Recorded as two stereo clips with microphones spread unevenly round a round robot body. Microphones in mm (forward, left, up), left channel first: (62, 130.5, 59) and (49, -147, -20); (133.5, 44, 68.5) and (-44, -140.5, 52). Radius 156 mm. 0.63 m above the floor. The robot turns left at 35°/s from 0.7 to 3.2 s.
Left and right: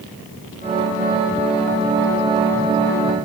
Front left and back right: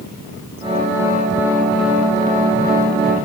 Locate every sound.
Only background noise.